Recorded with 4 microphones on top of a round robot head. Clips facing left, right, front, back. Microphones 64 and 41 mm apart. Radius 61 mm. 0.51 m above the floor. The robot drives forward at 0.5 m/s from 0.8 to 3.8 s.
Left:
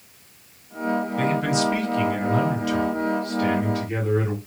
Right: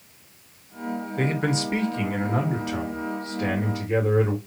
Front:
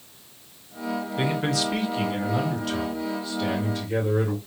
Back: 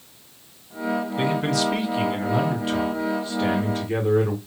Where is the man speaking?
75° right, 1.2 m; by 4.4 s 145° right, 1.6 m.